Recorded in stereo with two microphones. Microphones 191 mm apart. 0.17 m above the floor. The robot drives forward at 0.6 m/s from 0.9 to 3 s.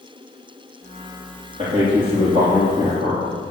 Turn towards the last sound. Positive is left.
turn(degrees=-30)  # may be behind; listen again after turning